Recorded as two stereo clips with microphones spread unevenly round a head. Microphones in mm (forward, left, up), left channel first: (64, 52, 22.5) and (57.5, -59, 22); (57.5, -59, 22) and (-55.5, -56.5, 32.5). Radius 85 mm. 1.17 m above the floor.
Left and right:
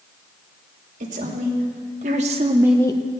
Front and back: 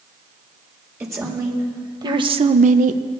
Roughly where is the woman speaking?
Behind right.